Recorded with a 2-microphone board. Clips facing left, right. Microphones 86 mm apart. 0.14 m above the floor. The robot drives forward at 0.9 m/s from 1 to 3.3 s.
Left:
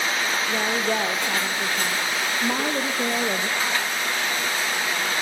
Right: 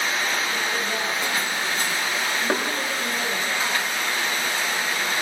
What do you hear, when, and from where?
0.5 s a woman speaking: 50° left (ahead or behind), 3.5 m; by 3.5 s 70° left (ahead or behind), 3 m
2.5 s knocking: 55° right (ahead or behind), 9 m